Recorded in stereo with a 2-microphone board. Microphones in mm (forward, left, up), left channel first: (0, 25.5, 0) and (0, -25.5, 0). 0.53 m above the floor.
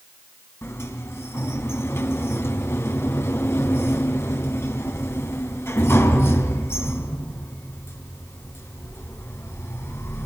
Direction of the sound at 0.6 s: 65° left (ahead or behind).